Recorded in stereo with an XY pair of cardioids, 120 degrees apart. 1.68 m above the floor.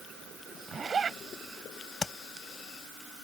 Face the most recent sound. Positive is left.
turn(degrees=25)